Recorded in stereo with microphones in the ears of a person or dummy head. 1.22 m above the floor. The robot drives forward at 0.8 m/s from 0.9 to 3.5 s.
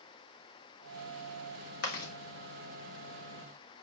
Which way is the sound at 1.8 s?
65° left (ahead or behind).